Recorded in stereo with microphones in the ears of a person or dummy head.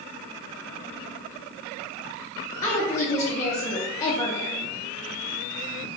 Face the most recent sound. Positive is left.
turn(degrees=20)  # may be behind; listen again after turning